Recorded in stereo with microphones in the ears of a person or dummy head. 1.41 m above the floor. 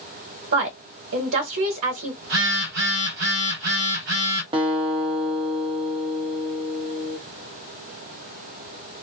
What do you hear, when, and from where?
0.5 s a woman speaking: 65° right (ahead or behind), 1.1 m
2.2 s a phone buzzing: 50° right (ahead or behind), 0.8 m
4.5 s a guitar: 20° right (ahead or behind), 0.5 m